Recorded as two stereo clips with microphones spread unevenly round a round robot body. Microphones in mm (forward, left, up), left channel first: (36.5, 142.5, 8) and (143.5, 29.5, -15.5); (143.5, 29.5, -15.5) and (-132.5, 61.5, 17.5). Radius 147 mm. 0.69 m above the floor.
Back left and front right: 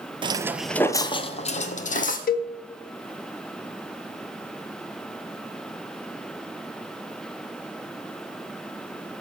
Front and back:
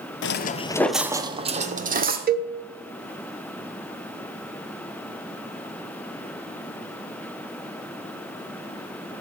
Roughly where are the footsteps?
Ahead.